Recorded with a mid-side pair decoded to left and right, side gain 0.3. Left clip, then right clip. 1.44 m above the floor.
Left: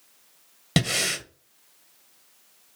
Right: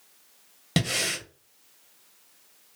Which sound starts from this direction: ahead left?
Breathing, at 0.8 s.